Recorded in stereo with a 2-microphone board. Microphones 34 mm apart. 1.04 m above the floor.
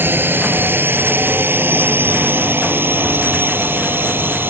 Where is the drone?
85° right.